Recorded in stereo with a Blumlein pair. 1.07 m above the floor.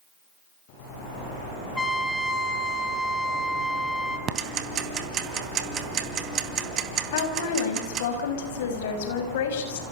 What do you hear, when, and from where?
1.8 s a trumpet: 10° left, 3 m
4.3 s ticking: 25° right, 3 m
7.1 s a woman speaking: 55° left, 6 m